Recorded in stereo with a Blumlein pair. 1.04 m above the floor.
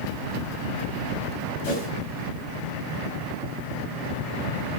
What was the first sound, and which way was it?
A whoosh, 45° left.